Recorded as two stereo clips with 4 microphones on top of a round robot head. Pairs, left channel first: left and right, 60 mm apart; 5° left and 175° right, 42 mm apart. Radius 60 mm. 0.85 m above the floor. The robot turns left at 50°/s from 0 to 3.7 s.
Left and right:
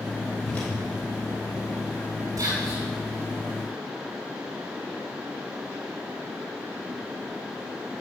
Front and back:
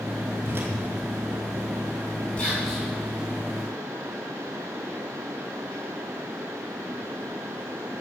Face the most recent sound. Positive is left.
turn(degrees=-130)